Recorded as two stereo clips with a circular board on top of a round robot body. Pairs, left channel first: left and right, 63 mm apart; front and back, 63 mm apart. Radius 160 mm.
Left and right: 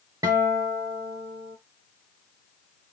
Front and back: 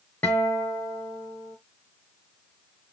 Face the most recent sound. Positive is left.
turn(degrees=-65)